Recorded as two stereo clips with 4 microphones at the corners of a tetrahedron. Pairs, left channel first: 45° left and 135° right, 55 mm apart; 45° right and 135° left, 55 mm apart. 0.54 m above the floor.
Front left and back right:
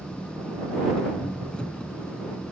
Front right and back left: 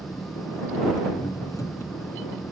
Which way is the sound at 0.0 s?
30° right.